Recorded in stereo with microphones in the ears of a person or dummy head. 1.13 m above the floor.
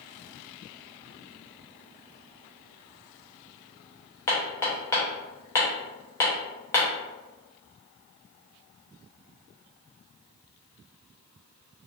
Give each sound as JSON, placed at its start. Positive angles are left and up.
{"t": 4.3, "sound": "hammering", "side_deg": 15, "distance_m": 0.5}